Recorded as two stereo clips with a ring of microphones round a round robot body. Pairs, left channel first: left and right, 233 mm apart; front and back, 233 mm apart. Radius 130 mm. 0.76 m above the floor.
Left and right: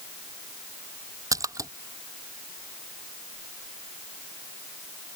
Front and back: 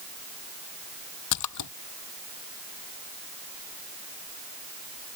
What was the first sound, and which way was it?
A splash, 15° right.